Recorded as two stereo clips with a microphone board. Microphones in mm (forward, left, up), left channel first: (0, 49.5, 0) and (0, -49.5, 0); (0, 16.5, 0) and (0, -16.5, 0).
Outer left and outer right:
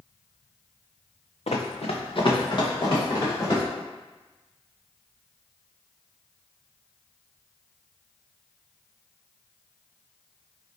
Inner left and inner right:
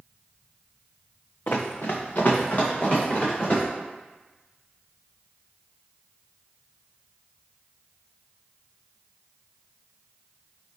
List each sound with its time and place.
1.5 s running footsteps: 75° left (ahead or behind), 0.7 m; by 3.6 s 35° left (ahead or behind), 3.5 m